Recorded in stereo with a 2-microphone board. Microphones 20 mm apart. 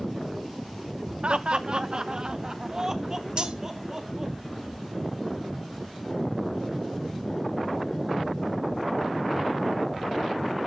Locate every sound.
1.2 s laughter: 60° right (ahead or behind), 0.8 m; by 4.3 s 20° right (ahead or behind), 2.5 m
3.4 s cutlery clinking: 45° right (ahead or behind), 1.1 m